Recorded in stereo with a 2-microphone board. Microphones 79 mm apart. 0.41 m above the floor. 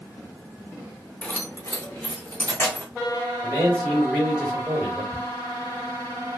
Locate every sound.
1.2 s keys jangling: 20° left (ahead or behind), 0.6 m; by 2.9 s 30° left (ahead or behind), 1.8 m
3.4 s a man speaking: 5° left (ahead or behind), 1.9 m
5.1 s ticking: 20° left (ahead or behind), 0.7 m